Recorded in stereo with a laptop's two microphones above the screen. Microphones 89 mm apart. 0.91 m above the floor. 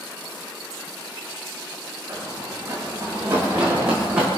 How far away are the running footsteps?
About 10 m.